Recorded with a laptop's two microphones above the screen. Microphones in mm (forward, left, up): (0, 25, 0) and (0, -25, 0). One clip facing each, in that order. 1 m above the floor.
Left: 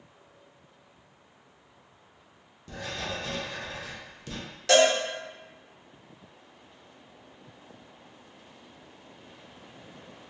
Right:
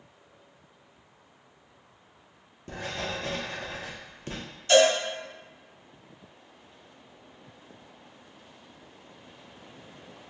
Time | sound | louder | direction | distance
2.7 | writing | right 1 dB | 35° right (ahead or behind) | 0.6 m
4.7 | a cowbell | right 1 dB | 85° left | 0.8 m